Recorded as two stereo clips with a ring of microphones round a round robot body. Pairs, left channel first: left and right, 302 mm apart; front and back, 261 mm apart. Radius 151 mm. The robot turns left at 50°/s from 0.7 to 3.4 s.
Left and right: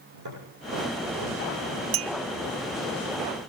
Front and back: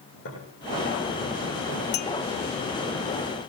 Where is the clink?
50° right, 0.5 m; by 2.1 s 60° right, 0.5 m.